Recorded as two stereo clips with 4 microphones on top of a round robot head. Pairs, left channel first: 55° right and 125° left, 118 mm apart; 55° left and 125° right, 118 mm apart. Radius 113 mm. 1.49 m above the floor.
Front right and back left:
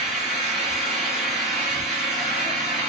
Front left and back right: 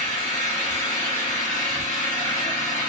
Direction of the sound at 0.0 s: 35° left.